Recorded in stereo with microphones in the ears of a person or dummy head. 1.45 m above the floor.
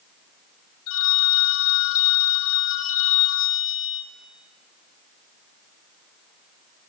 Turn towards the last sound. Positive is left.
turn(degrees=70)  # may be behind; listen again after turning